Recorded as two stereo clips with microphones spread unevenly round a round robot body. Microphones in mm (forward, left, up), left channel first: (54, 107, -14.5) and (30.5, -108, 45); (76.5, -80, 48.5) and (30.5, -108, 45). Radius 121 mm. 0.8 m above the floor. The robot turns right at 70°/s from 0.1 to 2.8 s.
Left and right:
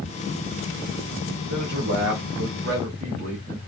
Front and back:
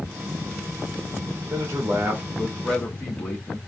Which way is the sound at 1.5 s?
130° right.